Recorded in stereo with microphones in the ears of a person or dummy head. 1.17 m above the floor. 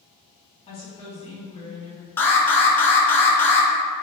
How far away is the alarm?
About 0.6 m.